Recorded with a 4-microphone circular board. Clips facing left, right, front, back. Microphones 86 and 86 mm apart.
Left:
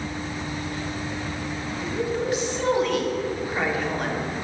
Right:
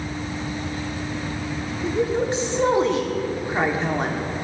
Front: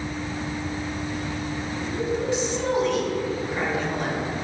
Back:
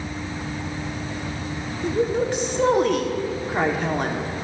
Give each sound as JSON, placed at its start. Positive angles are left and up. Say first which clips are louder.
{"t": 1.8, "sound": "a woman speaking", "louder": "right 4 dB, back 5 dB", "azimuth_deg": -150, "distance_m": 1.5}